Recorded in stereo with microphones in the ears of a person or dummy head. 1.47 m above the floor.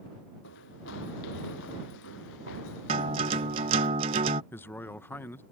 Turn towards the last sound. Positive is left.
turn(degrees=10)  # may be behind; listen again after turning